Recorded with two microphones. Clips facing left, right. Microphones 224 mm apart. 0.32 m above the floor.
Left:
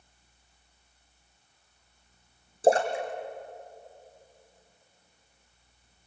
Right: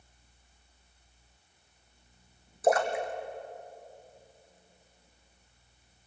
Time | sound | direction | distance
2.6 | a splash | 30° left (ahead or behind) | 2.5 m